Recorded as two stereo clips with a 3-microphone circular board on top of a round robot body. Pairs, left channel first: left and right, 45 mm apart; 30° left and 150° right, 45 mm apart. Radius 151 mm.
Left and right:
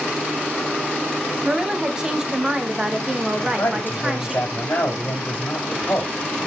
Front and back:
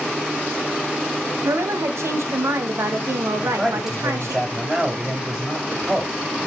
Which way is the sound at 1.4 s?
165° right.